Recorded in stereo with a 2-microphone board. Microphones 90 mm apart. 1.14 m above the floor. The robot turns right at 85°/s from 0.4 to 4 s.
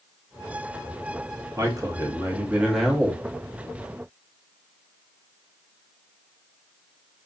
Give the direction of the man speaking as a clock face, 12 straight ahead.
4 o'clock.